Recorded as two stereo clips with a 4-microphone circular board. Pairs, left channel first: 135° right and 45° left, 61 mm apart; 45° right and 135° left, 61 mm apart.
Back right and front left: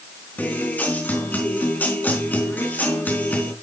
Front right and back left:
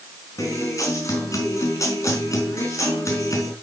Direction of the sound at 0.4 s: 75° right.